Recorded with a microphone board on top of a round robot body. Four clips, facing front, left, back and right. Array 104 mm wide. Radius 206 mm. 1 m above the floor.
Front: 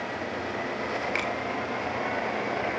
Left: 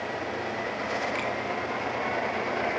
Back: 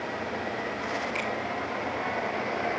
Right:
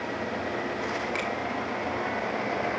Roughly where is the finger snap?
Ahead.